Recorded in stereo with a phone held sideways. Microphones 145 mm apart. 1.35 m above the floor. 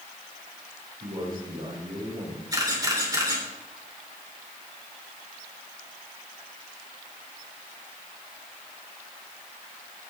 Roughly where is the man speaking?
Right.